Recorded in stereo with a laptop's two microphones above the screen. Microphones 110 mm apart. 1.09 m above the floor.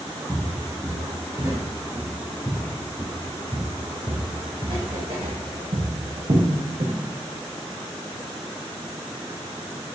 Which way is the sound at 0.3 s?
5° left (ahead or behind).